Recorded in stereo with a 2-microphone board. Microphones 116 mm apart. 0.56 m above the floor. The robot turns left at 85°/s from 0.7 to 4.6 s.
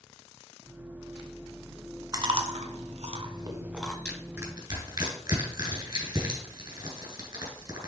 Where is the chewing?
30° right (ahead or behind), 1.2 m; by 4.0 s 5° left (ahead or behind), 1.2 m.